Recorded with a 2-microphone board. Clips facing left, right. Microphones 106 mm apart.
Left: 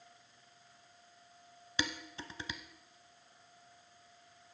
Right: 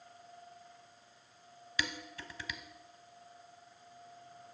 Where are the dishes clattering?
25° left (ahead or behind), 0.8 m.